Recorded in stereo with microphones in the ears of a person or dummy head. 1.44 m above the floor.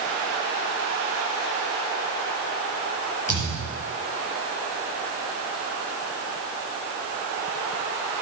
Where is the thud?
35° left (ahead or behind), 5 m.